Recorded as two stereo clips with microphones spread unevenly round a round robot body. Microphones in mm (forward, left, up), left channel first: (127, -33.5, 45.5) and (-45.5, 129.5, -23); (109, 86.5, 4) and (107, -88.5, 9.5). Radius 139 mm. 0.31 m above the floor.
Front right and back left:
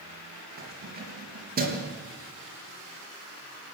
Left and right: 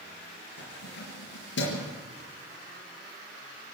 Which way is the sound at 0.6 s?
90° left.